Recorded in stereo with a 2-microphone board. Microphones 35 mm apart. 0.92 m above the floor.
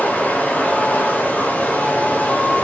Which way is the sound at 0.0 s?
55° left (ahead or behind).